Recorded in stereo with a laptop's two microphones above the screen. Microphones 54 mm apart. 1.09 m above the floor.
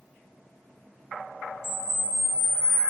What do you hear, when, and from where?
1.6 s a camera shutter: 55° left (ahead or behind), 0.9 m